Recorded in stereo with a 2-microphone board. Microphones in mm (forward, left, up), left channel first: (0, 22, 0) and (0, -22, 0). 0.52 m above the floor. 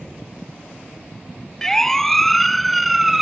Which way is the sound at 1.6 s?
10° left (ahead or behind).